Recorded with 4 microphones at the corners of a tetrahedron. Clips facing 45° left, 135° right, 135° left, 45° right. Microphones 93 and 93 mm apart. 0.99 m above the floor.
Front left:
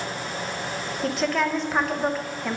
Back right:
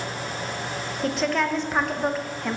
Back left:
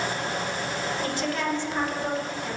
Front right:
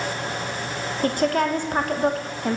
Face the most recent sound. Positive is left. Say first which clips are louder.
# even, front right 10 dB
turn(degrees=-45)